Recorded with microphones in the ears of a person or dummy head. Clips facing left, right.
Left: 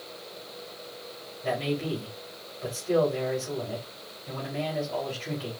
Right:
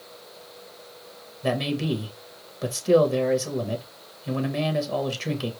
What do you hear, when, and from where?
1.4 s a man speaking: 75° right (ahead or behind), 1.5 m